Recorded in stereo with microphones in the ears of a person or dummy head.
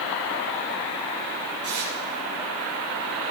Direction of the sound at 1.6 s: 35° right (ahead or behind).